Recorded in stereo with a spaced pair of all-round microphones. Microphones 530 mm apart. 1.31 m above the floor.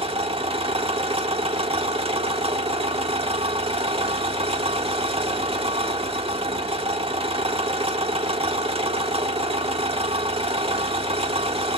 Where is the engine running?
10° right (ahead or behind), 1.2 m.